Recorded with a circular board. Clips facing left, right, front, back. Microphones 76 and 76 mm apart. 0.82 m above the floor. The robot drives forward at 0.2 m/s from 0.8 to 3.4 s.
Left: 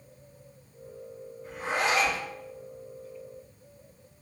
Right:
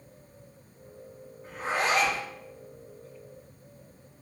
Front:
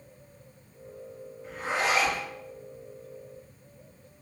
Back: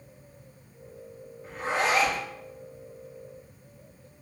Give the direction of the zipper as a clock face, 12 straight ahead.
4 o'clock.